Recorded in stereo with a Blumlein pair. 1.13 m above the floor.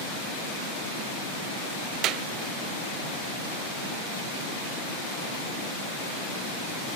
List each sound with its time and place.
2.0 s a clap: 35° right, 0.7 m